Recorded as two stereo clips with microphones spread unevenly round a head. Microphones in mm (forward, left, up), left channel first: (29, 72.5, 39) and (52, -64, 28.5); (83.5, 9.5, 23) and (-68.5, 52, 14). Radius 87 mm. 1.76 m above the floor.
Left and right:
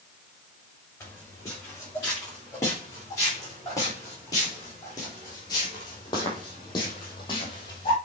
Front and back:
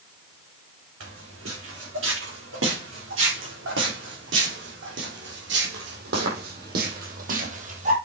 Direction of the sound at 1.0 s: 175° left.